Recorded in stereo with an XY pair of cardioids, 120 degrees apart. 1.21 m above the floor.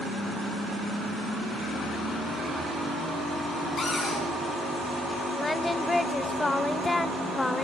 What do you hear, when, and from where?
3.8 s a cupboard door: 30° left, 10 m
5.4 s singing: 15° left, 0.7 m